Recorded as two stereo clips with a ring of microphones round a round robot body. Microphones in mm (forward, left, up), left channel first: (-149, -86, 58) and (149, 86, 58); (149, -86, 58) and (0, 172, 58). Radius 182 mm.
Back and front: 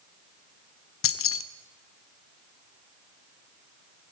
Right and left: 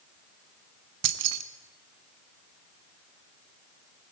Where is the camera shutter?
I don't hear a camera shutter.